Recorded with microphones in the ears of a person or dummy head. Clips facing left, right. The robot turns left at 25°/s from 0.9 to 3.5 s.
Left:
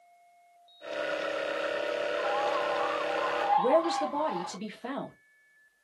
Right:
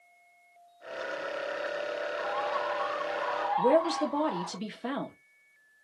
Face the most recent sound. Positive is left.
turn(degrees=-10)  # may be behind; listen again after turning